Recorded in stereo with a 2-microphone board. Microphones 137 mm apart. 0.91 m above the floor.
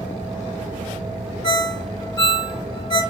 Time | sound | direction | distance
1.4 | a ringtone | 35° left (ahead or behind) | 0.6 m